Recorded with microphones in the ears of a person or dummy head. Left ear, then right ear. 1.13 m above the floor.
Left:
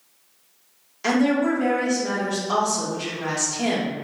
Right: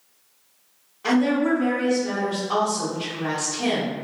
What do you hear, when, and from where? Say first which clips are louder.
1.0 s a woman speaking: even; 80° left, 1.4 m